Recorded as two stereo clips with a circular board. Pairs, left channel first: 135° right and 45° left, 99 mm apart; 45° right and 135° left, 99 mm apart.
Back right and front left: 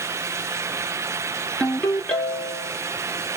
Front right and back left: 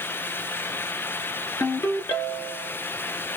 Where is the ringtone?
70° right, 1.1 m.